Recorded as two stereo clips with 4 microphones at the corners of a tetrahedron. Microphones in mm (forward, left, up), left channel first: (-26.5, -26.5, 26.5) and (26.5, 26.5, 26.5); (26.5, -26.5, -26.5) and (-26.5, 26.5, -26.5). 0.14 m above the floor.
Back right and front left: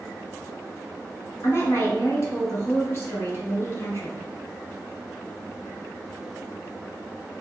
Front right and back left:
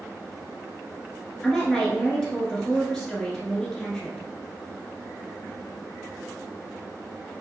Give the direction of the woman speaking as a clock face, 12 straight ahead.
4 o'clock.